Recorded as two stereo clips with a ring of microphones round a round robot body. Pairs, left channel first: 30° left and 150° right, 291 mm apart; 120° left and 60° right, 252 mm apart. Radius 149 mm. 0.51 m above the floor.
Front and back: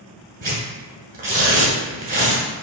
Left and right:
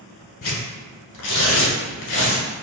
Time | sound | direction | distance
0.4 | tearing paper | 150° left | 1.4 m